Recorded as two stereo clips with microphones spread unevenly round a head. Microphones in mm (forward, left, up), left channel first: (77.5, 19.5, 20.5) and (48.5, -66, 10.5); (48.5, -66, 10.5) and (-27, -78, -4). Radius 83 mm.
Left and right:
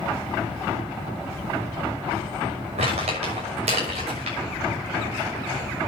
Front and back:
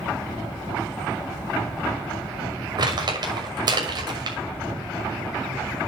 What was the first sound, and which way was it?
Crumpling, 145° right.